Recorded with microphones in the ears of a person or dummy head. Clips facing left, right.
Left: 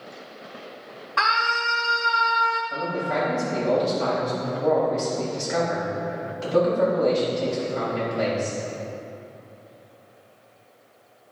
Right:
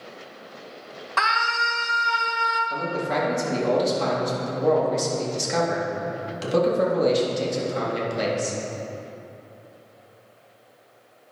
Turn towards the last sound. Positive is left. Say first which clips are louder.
# right 2 dB
turn(degrees=-55)  # may be behind; listen again after turning